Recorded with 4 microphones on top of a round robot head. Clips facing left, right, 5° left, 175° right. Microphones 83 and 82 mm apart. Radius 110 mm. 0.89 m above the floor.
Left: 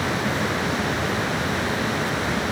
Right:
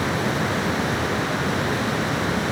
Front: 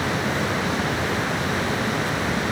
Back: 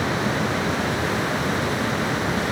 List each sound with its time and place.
Only background noise.